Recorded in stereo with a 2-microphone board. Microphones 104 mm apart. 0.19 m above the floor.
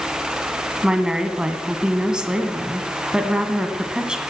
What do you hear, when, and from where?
0.8 s a woman speaking: 10° right (ahead or behind), 1.4 m